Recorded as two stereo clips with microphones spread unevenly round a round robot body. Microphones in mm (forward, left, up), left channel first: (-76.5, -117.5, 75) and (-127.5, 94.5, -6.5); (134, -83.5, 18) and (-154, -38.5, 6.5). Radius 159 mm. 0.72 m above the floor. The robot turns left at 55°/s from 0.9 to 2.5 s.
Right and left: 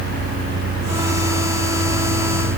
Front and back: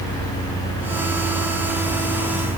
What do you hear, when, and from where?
Only background noise.